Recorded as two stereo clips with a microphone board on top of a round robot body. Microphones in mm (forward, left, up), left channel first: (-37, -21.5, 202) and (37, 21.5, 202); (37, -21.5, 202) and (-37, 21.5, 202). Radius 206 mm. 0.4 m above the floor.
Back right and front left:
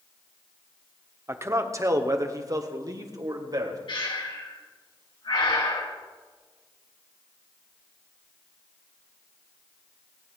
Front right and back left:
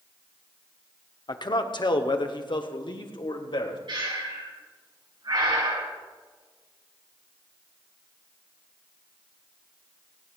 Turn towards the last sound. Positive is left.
turn(degrees=-175)